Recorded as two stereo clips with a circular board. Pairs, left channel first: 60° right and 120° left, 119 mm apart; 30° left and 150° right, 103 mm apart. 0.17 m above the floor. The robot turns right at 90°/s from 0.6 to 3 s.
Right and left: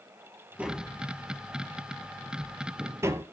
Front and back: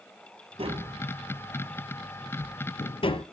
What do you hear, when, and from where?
0.6 s tapping: 160° right, 0.8 m; by 3.2 s 55° left, 0.8 m